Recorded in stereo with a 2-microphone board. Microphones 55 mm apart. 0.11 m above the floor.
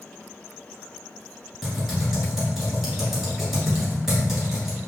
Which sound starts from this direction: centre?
Typing on a keyboard, at 1.6 s.